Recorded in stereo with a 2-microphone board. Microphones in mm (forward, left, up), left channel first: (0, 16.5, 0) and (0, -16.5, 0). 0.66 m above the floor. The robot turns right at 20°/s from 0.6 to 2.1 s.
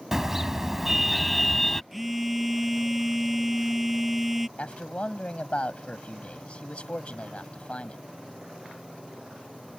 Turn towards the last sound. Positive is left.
turn(degrees=40)  # may be behind; listen again after turning